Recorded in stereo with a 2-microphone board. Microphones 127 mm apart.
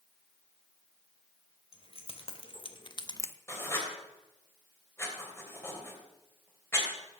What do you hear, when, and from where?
1.7 s keys jangling: 50° left (ahead or behind), 2.5 m; by 3.4 s 15° left (ahead or behind), 0.5 m
3.5 s writing: 20° left (ahead or behind), 3 m